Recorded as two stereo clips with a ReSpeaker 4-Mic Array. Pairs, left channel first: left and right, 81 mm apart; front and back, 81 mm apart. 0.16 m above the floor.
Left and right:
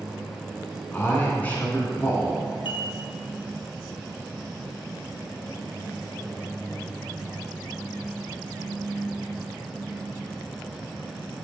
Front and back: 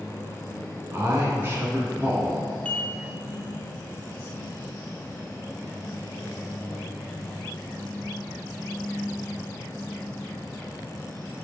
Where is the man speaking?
145° left, 1.6 m.